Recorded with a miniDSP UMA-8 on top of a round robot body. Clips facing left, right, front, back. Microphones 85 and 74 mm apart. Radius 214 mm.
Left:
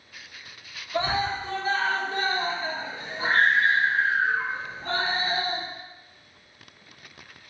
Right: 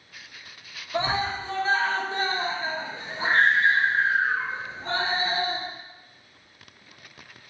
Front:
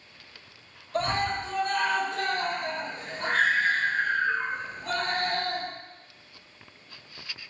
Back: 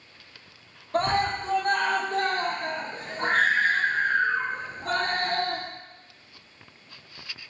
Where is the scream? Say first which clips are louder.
Even, back 3 dB; 150° right, 1.6 m.